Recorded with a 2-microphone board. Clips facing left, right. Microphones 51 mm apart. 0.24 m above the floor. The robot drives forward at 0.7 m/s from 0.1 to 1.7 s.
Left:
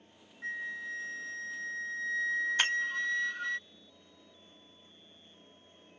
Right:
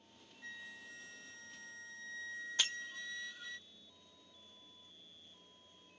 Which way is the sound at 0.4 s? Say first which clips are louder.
Left 13 dB; 50° left (ahead or behind).